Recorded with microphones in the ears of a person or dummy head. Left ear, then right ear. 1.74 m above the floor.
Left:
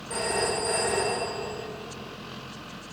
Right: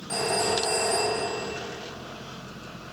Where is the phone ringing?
75° right (ahead or behind), 3 m.